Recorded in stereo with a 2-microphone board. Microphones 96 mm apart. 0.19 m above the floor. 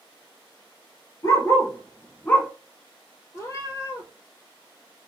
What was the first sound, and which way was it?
A dog barking, 35° left (ahead or behind).